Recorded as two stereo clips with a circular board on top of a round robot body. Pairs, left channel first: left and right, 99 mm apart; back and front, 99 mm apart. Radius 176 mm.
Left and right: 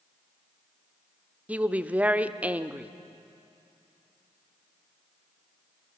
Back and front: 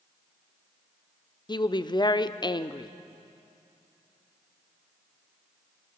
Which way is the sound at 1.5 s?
160° right.